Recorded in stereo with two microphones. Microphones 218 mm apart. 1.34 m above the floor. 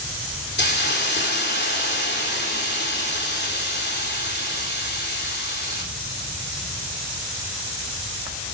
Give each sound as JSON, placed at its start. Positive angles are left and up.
{"t": 0.6, "sound": "a hiss", "side_deg": 50, "distance_m": 3.0}